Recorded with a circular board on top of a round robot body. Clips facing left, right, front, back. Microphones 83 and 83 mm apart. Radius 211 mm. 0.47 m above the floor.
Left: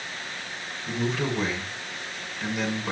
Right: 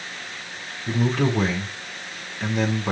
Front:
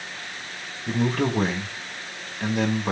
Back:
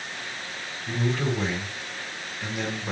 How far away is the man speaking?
About 5 m.